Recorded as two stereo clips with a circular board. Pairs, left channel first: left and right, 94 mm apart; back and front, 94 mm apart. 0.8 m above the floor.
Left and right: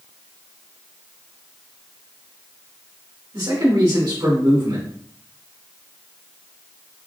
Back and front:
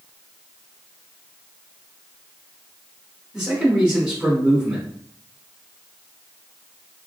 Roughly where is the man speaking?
Right.